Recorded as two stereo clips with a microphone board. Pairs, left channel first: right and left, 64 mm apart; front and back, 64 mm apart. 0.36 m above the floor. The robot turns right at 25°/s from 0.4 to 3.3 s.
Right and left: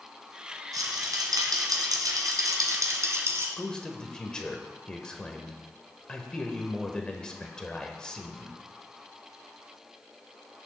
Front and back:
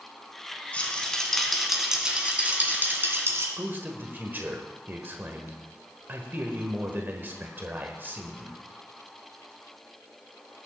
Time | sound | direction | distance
0.7 | a rattle | 70° left | 1.8 m
3.6 | a man speaking | 160° right | 1.2 m